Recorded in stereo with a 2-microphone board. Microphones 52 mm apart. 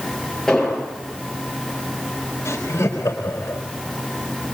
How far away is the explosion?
About 8 m.